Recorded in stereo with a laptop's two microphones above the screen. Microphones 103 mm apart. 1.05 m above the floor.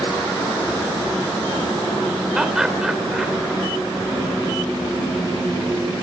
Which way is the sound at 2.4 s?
5° right (ahead or behind).